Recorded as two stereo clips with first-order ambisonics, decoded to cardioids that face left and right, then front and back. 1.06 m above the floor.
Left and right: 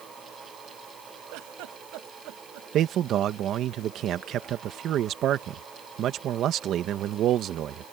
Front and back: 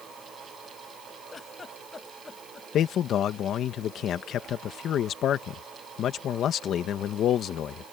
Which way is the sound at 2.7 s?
45° right.